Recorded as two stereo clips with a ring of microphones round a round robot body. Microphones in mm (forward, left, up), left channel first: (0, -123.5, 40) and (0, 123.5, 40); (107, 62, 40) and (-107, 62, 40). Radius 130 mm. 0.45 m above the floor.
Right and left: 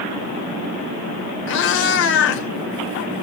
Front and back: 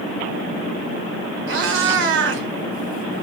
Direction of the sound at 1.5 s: 135° right.